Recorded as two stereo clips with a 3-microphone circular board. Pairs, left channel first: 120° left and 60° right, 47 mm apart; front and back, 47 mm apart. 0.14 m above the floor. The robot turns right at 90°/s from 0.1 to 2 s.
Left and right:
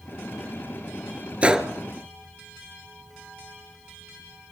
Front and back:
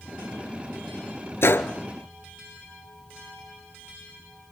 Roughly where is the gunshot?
Ahead.